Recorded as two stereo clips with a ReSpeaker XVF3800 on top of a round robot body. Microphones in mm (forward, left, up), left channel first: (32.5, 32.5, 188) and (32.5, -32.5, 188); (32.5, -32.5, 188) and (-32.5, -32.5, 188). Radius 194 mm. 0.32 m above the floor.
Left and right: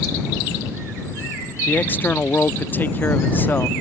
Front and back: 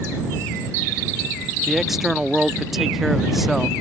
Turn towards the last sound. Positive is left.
turn(degrees=95)